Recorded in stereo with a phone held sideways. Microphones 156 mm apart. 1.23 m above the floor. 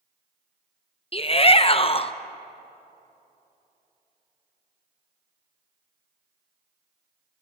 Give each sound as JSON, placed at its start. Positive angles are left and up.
{"t": 1.1, "sound": "a shout", "side_deg": 40, "distance_m": 0.7}